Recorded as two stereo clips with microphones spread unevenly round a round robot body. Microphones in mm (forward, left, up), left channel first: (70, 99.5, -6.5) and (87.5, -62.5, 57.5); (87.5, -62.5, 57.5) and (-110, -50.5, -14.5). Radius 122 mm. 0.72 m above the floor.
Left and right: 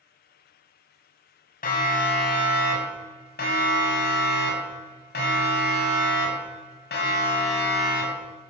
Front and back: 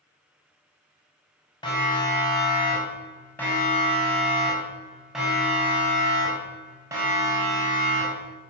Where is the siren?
70° left, 6.5 m; by 8.3 s 110° left, 6.5 m.